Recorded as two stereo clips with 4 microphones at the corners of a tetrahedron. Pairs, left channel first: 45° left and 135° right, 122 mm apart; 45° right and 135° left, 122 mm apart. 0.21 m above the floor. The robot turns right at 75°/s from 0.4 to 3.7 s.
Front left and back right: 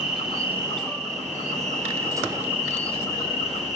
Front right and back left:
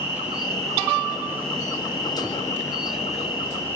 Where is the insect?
145° left, 4 m; by 3.8 s 30° left, 4 m.